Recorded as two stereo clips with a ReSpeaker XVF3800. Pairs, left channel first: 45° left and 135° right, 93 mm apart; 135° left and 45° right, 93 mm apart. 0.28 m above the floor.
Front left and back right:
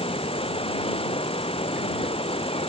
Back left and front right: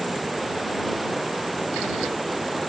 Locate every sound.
0.0 s running water: 45° left